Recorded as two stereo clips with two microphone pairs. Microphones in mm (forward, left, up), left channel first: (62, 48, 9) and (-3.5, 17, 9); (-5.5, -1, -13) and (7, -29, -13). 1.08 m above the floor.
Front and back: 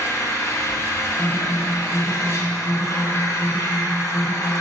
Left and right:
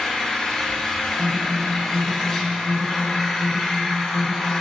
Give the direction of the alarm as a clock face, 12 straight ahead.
3 o'clock.